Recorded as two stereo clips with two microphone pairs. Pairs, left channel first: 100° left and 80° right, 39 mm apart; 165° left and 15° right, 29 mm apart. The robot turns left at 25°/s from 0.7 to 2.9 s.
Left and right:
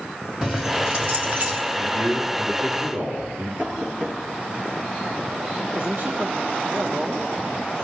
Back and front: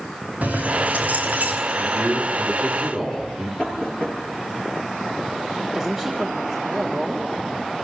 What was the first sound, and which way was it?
Keys jangling, 20° right.